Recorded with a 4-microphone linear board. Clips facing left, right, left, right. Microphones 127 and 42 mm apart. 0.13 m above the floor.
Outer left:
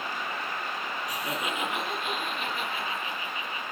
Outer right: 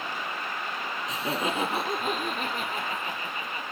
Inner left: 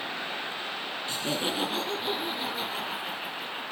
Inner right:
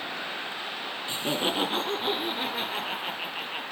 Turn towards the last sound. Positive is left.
turn(degrees=-45)  # may be behind; listen again after turning